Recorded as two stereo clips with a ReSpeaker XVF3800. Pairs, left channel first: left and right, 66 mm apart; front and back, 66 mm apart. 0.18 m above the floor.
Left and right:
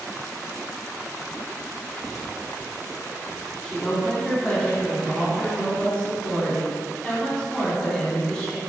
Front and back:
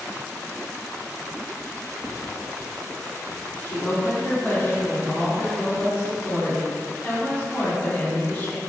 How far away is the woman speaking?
About 1.2 m.